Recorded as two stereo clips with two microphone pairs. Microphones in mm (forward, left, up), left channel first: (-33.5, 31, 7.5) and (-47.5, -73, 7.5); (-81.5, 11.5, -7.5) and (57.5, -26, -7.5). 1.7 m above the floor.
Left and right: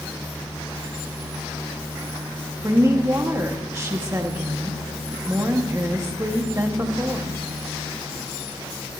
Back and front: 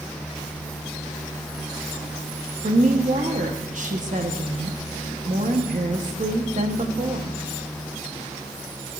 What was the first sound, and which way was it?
A woman speaking, 40° right.